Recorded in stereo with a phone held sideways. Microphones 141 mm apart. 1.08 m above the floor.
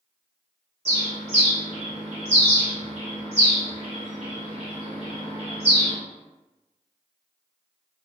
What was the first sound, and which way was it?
A bird, 45° right (ahead or behind).